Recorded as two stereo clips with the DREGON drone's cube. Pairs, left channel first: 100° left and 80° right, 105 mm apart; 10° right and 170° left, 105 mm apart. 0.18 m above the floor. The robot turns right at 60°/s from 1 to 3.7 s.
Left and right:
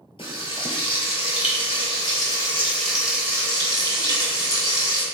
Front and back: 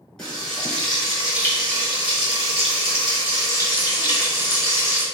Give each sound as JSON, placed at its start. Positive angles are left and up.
{"t": 0.2, "sound": "frying", "azimuth_deg": 75, "distance_m": 1.7}